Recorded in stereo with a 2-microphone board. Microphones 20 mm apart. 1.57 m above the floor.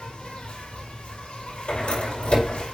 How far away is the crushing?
No crushing in this recording.